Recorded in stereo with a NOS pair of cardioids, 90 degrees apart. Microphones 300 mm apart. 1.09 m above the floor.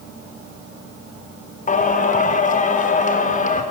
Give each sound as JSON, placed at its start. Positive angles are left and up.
{"t": 1.7, "sound": "singing", "azimuth_deg": 25, "distance_m": 1.2}